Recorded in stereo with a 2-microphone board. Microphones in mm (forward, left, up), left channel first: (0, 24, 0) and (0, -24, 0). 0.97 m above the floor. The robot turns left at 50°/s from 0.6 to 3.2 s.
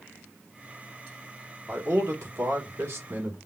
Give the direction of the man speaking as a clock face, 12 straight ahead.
2 o'clock.